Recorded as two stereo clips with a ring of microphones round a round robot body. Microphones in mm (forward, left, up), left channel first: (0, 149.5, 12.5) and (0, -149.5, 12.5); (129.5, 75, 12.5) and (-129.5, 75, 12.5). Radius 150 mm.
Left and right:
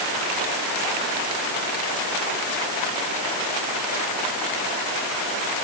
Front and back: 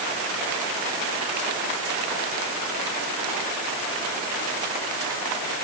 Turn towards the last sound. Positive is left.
No sound to turn to.